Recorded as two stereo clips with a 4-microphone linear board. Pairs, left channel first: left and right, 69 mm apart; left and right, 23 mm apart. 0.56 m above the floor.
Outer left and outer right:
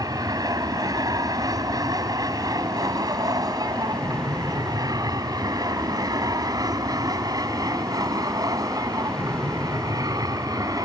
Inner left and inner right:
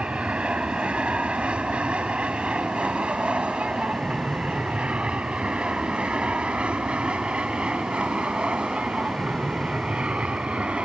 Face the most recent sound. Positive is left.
turn(degrees=-55)  # may be behind; listen again after turning